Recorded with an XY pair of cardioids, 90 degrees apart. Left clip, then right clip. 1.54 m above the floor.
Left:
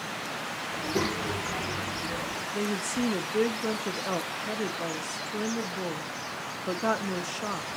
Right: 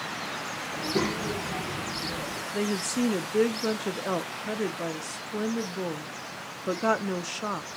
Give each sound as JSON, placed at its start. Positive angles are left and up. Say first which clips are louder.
{"t": 0.7, "sound": "a child speaking", "louder": "right 1 dB", "azimuth_deg": -10, "distance_m": 1.3}
{"t": 2.5, "sound": "a woman speaking", "louder": "right 2 dB", "azimuth_deg": -20, "distance_m": 0.6}